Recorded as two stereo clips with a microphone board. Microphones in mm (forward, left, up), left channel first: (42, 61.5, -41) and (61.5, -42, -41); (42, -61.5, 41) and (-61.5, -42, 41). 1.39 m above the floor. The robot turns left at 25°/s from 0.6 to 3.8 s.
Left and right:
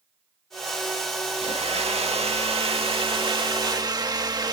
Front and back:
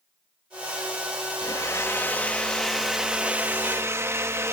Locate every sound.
1.4 s a blender: 65° right; by 4.5 s 125° right